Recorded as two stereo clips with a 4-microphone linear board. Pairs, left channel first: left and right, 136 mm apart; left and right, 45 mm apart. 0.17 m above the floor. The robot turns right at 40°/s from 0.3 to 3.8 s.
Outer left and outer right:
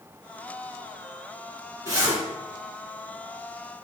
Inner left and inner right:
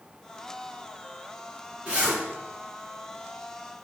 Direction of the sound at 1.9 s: 25° right (ahead or behind).